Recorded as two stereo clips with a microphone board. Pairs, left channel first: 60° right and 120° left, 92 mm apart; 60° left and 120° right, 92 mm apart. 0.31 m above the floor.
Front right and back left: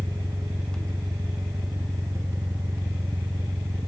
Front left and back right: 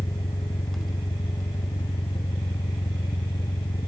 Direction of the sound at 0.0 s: 70° left.